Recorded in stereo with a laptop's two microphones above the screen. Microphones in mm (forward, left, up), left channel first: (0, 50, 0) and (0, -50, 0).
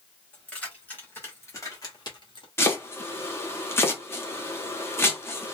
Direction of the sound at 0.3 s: 10° left (ahead or behind).